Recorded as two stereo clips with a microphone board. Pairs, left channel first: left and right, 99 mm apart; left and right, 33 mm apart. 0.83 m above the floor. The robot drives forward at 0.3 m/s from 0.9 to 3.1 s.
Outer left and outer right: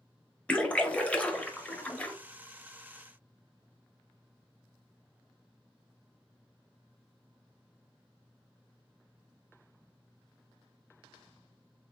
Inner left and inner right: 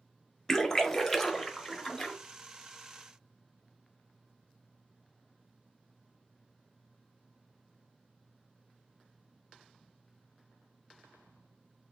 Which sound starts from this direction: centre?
A splash, at 0.5 s.